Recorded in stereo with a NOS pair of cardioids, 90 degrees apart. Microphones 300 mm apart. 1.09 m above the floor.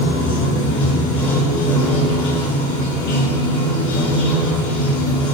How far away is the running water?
About 4 m.